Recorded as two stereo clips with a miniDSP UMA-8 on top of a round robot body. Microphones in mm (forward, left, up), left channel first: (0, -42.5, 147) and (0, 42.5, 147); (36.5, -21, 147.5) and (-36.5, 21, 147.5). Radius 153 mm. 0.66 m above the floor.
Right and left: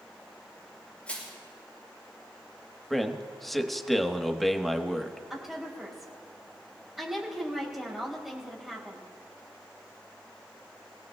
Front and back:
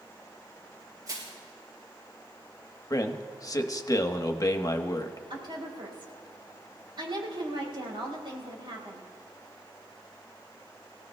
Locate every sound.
1.1 s crushing: 165° right, 6.5 m
2.9 s a man speaking: straight ahead, 1.2 m
5.3 s a woman speaking: 175° left, 4.5 m